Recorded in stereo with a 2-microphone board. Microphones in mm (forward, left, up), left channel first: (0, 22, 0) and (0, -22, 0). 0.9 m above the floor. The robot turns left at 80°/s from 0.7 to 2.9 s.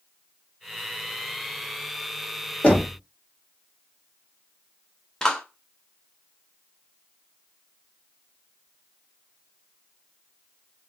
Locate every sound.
2.6 s knocking: 35° left (ahead or behind), 1.6 m; by 3.0 s 15° left (ahead or behind), 1.6 m
5.2 s a clap: 15° left (ahead or behind), 1.0 m